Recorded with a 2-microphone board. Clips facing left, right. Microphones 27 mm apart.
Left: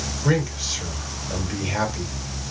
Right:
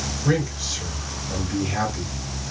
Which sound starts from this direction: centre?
A man speaking, at 0.2 s.